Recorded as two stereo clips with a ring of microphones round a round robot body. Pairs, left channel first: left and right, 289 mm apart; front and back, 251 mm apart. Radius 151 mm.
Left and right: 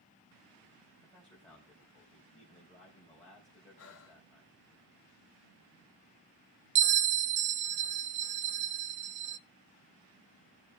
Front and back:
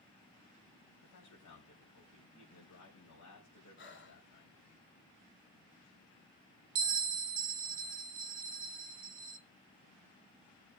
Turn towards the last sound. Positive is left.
turn(degrees=-120)